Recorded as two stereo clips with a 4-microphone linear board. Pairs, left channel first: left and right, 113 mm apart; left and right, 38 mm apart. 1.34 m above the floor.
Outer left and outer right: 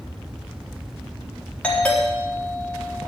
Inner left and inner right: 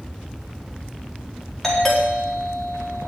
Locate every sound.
1.6 s a doorbell: 10° left (ahead or behind), 4 m